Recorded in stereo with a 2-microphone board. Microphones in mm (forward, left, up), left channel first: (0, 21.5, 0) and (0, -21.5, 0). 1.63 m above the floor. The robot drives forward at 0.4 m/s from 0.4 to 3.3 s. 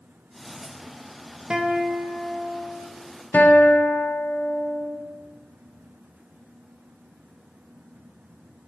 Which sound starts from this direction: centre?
A guitar, at 1.5 s.